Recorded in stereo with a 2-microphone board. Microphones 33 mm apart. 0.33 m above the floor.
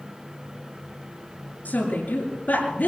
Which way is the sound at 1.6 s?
55° left (ahead or behind).